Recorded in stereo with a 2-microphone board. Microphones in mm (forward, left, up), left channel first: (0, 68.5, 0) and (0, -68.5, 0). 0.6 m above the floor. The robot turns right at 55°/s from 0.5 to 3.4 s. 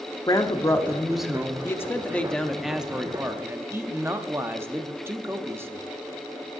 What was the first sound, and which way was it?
A woman speaking, 140° left.